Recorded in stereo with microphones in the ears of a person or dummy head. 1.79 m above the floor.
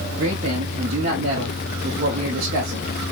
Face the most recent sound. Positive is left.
turn(degrees=-40)  # may be behind; listen again after turning